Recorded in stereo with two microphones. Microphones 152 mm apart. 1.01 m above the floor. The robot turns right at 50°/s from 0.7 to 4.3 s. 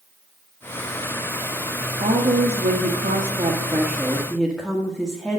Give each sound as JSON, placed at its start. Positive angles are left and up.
{"t": 2.0, "sound": "a woman speaking", "azimuth_deg": -115, "distance_m": 1.5}